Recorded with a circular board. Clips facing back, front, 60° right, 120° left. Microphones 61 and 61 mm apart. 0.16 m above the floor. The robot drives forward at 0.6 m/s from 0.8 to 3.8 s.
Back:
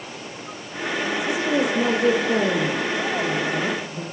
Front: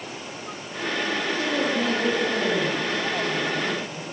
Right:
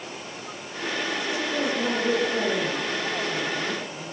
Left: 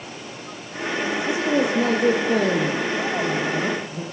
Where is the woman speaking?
120° left, 5.5 m; by 4.0 s 135° left, 6.5 m.